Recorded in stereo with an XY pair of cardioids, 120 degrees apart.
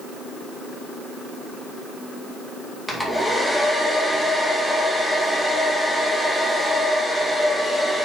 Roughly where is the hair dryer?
Ahead.